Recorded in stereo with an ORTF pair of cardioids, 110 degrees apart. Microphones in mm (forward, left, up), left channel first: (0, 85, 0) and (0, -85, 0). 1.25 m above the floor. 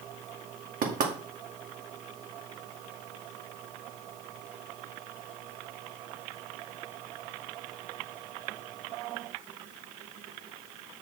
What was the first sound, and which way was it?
Knocking, 55° right.